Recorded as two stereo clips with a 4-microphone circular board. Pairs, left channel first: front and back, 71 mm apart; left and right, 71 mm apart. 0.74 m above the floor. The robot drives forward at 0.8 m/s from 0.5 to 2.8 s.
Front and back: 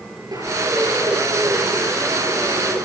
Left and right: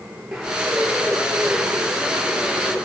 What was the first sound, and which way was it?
A bird, 175° right.